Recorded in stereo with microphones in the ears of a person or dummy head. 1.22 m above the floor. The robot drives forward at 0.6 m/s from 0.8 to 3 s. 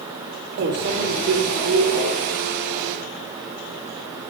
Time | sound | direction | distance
0.6 | a microwave | 55° right (ahead or behind) | 0.8 m